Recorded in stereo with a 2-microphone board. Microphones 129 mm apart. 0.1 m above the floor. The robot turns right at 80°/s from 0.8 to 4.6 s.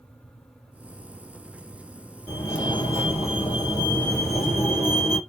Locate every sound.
2.3 s a fire alarm: 15° left, 3 m; by 5.2 s 155° right, 3 m